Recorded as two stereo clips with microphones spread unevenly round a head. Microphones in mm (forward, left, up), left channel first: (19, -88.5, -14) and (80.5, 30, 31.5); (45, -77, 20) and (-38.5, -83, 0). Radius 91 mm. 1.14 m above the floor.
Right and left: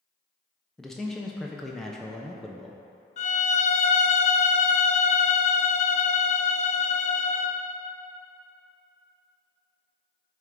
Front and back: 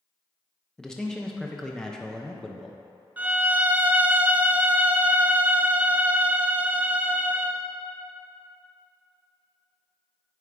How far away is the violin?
About 0.5 m.